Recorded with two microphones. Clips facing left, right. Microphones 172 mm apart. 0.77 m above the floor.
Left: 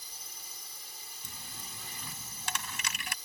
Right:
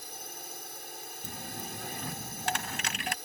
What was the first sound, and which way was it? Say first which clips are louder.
A drone: right 10 dB; 65° right (ahead or behind).